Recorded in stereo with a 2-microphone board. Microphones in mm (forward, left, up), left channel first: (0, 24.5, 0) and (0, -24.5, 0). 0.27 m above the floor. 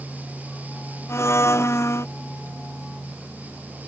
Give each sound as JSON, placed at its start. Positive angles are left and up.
{"t": 1.1, "sound": "a blender", "side_deg": 65}